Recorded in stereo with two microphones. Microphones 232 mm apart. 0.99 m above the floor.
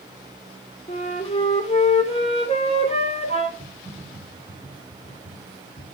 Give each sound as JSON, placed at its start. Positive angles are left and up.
{"t": 0.9, "sound": "a flute", "side_deg": 25, "distance_m": 3.0}
{"t": 3.6, "sound": "typing on a keyboard", "side_deg": -30, "distance_m": 3.5}